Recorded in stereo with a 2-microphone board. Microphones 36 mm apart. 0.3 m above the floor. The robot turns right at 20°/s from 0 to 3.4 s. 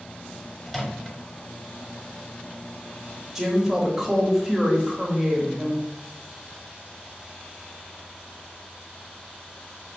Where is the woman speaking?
10° right (ahead or behind), 0.9 m.